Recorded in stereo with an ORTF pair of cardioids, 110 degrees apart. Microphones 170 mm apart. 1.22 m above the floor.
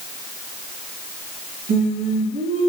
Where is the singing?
60° right, 2.5 m.